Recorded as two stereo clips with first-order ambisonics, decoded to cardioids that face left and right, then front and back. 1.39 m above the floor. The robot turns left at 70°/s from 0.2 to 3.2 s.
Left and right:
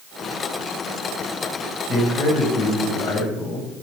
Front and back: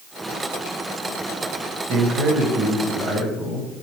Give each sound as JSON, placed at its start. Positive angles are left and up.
{"t": 1.9, "sound": "a man speaking", "azimuth_deg": 145, "distance_m": 1.6}